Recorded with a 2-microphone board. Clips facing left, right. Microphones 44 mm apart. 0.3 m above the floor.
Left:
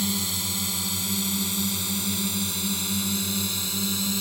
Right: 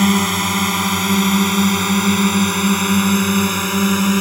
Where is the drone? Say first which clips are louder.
Right 14 dB; 60° right (ahead or behind); by 4.2 s 55° right (ahead or behind).